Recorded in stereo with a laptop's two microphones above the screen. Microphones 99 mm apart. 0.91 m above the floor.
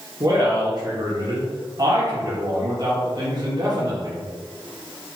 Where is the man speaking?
45° right (ahead or behind), 1.2 m.